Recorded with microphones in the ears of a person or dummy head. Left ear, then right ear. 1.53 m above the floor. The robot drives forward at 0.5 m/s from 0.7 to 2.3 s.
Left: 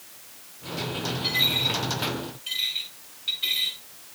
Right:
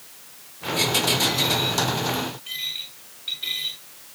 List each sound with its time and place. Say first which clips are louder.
1.2 s a dropped coin: right 1 dB; centre (ahead or behind), 7.5 m